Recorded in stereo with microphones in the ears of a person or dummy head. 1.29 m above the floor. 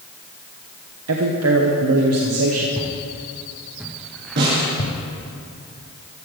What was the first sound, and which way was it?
A man speaking, 70° right (ahead or behind).